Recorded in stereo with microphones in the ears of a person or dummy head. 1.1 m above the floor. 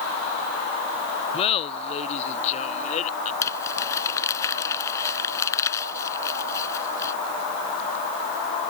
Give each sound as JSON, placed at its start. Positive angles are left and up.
{"t": 1.3, "sound": "laughter", "side_deg": 30}
{"t": 3.4, "sound": "crumpling", "side_deg": 15}